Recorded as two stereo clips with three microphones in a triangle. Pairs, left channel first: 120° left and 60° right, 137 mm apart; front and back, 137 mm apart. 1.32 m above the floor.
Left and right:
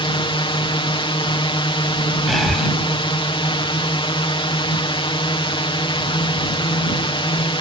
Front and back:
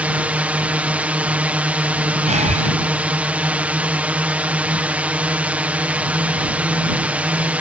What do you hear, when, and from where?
0.0 s a drone: 105° left
2.3 s breathing: 150° right